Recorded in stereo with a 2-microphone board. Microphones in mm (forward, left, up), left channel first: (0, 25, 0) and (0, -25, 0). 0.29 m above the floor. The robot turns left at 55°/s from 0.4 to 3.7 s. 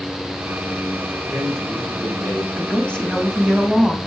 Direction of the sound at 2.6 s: 45° left.